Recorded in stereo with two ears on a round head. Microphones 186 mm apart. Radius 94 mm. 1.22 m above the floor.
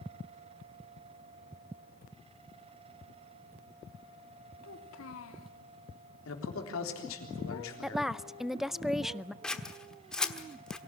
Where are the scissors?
5° left (ahead or behind), 1.2 m.